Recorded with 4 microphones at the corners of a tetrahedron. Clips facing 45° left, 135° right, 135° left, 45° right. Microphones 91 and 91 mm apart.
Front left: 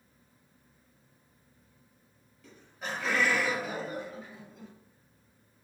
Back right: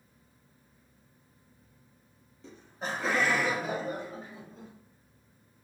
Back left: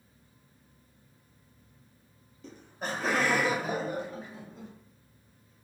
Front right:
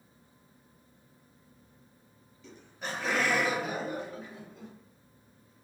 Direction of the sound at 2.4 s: 170° left.